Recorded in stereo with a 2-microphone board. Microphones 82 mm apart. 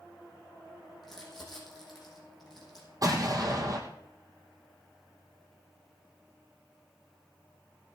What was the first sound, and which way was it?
Crumpling, centre (ahead or behind).